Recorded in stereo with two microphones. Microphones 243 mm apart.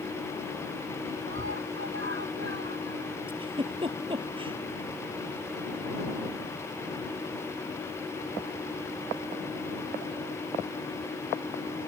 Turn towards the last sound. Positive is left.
turn(degrees=-20)  # may be behind; listen again after turning